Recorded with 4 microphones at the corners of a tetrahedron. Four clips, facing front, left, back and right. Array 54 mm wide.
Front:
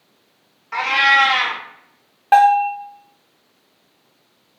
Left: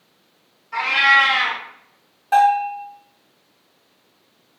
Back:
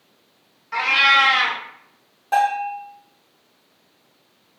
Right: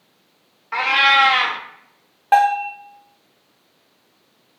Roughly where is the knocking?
No knocking in this recording.